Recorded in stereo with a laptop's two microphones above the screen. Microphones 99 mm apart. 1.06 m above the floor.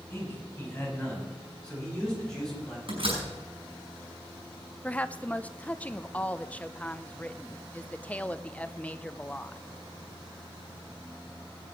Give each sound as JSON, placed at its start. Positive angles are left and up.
{"t": 0.1, "sound": "a man speaking", "side_deg": 20, "distance_m": 8.5}
{"t": 2.9, "sound": "a door slam", "side_deg": -60, "distance_m": 5.5}
{"t": 4.8, "sound": "a woman speaking", "side_deg": 15, "distance_m": 0.6}